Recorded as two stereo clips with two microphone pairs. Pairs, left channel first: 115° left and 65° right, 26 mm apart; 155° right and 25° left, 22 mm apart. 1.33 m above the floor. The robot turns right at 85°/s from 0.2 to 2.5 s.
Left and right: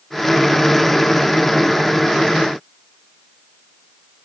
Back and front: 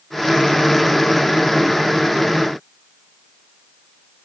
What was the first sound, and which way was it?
Only background noise.